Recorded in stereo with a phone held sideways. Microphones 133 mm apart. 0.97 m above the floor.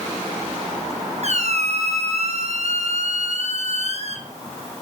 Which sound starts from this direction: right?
A squeak, at 1.2 s.